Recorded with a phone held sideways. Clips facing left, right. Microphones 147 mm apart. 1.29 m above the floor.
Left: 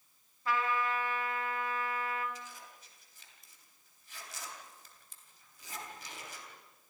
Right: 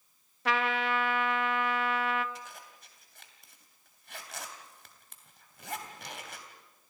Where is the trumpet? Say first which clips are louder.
Right 3 dB; 80° right, 0.9 m.